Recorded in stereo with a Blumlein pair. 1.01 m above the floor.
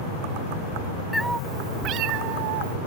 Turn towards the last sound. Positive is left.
turn(degrees=-55)